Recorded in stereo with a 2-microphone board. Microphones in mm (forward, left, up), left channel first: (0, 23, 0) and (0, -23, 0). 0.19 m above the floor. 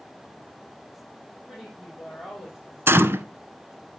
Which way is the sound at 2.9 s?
60° right (ahead or behind).